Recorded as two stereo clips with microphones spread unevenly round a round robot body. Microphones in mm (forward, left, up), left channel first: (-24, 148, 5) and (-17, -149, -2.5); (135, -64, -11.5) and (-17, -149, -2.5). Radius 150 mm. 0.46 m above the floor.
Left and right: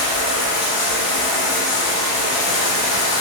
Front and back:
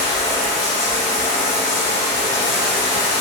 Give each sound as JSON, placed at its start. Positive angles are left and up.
{"t": 0.0, "sound": "running water", "azimuth_deg": 105, "distance_m": 1.5}